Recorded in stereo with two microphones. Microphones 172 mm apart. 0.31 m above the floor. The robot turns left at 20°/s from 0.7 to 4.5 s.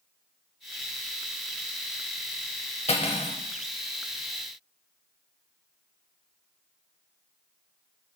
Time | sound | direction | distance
2.9 | cutlery clinking | 40° left (ahead or behind) | 0.6 m